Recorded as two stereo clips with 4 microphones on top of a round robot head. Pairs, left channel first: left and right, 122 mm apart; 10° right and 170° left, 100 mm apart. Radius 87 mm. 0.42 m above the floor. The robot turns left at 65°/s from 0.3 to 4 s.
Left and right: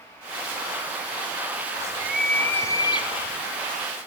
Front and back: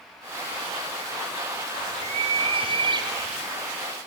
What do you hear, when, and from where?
1.7 s a bird: 145° right, 2 m; by 3.4 s 105° left, 2 m